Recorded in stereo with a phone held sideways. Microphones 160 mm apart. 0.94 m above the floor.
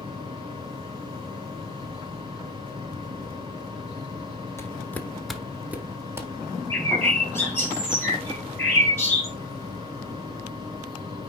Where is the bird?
15° left (ahead or behind), 2.5 m.